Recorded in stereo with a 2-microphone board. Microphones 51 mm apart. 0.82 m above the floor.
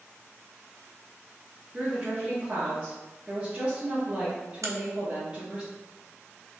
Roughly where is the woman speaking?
Centre.